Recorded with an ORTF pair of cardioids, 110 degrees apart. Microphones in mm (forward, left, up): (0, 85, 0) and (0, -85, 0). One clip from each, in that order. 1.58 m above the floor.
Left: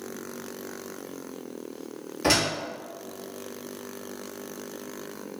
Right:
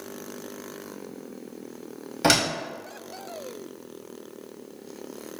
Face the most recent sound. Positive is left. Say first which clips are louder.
# right 2 dB
turn(degrees=-45)